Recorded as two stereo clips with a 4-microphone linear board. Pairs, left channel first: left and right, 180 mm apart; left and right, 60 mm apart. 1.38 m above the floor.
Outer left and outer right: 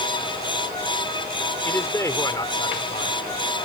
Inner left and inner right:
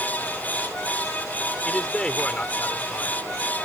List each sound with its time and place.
1.6 s a man speaking: 10° left (ahead or behind); by 3.2 s 35° left (ahead or behind)